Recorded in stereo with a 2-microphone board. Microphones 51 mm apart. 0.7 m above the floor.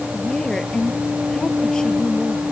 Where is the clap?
No clap in this recording.